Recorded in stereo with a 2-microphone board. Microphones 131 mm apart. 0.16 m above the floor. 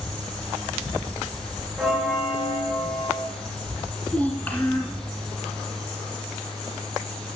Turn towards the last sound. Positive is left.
turn(degrees=15)  # may be behind; listen again after turning